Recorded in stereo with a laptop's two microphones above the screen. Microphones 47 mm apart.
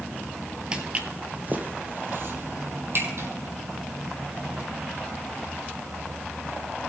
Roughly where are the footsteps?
Right.